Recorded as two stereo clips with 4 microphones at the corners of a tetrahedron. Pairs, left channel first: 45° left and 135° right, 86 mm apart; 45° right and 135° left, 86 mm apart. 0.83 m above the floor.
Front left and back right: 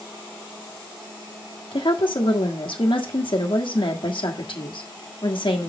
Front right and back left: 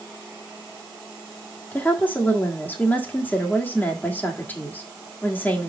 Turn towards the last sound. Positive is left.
turn(degrees=25)